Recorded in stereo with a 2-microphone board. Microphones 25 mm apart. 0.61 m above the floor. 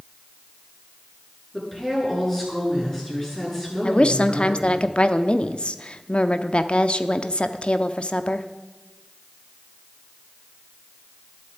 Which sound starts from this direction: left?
A woman speaking, at 3.8 s.